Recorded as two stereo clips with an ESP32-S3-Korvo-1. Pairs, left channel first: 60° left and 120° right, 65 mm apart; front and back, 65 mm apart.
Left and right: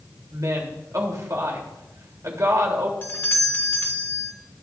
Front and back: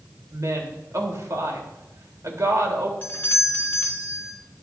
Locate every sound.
0.3 s a woman speaking: 150° right, 3 m
3.0 s a doorbell: 25° left, 1.6 m